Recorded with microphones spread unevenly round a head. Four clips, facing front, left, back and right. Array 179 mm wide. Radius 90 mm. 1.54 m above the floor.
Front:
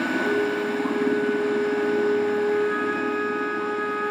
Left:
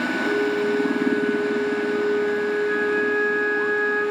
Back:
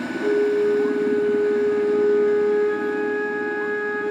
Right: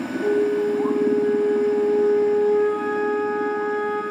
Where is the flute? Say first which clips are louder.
Right 4 dB, back 10 dB; 105° right, 1.2 m.